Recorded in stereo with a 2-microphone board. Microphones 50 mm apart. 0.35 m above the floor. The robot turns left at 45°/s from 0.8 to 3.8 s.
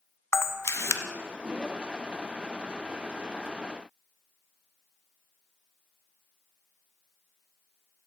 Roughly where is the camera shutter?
Left.